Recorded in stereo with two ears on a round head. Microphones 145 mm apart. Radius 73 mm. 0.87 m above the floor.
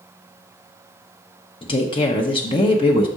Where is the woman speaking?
30° left (ahead or behind), 0.8 m.